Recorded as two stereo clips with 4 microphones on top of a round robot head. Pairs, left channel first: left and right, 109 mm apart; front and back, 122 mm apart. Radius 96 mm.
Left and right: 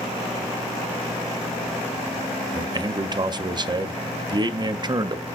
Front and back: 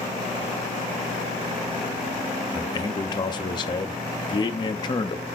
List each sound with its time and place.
2.5 s a man speaking: 45° right, 0.9 m